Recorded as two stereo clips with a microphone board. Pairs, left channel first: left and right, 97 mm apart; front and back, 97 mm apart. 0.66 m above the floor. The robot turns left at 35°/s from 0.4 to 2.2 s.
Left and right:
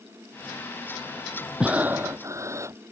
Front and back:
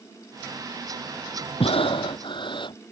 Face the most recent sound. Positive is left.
turn(degrees=-30)